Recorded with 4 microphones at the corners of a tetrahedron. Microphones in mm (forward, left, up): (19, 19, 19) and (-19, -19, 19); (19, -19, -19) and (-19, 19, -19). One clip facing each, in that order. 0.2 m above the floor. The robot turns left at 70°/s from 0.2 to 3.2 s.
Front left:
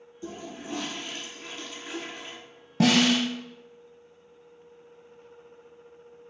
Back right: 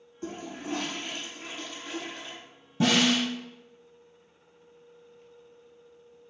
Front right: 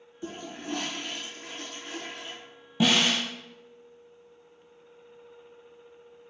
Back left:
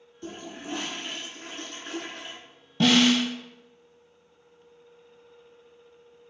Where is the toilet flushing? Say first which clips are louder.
Back right 2 dB, front right 1 dB; 120° right, 0.8 m; by 2.4 s 90° left, 0.8 m.